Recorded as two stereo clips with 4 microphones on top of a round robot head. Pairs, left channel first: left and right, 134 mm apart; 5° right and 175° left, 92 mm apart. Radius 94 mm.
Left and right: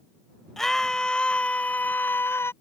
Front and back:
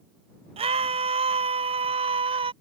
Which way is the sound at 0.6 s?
175° left.